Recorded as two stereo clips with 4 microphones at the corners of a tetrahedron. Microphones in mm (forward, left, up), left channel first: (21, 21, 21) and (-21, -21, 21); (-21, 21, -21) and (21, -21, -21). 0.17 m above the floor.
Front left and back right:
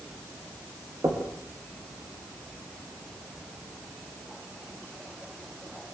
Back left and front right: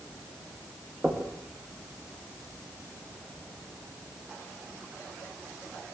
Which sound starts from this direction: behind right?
Knocking, at 1.0 s.